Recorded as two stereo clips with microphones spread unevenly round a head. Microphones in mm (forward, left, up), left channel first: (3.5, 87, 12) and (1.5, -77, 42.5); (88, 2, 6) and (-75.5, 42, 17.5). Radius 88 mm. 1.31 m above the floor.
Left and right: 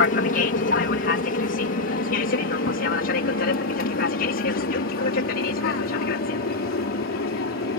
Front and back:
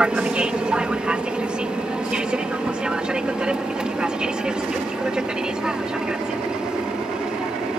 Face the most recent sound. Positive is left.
turn(degrees=80)